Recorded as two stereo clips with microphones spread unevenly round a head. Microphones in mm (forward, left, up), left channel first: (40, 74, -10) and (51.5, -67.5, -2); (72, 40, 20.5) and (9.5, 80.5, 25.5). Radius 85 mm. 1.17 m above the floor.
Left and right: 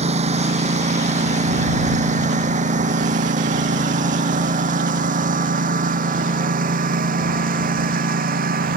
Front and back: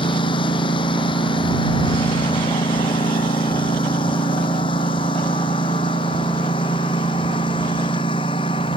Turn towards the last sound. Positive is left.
turn(degrees=-65)